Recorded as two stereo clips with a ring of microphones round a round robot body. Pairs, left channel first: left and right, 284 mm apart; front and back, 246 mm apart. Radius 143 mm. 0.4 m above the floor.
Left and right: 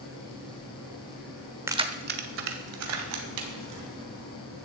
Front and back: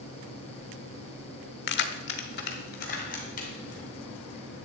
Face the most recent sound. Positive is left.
turn(degrees=-65)